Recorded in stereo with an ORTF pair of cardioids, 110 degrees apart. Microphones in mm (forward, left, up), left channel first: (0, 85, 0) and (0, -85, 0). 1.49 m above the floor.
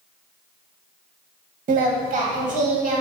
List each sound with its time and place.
1.7 s singing: 55° right, 1.8 m